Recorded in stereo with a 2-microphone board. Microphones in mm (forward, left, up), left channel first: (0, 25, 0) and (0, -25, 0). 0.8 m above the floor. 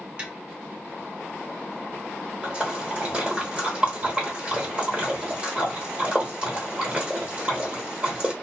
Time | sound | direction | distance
0.2 | tapping | 25° right (ahead or behind) | 0.9 m
2.4 | a splash | 20° right (ahead or behind) | 1.2 m